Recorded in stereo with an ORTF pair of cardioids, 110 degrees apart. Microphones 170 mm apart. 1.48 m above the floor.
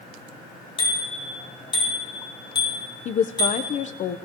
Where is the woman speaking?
45° left, 0.8 m.